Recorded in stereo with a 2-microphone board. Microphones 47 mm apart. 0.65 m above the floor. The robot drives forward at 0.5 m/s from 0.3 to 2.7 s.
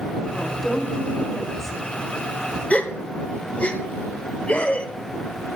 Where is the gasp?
30° left (ahead or behind), 1.0 m.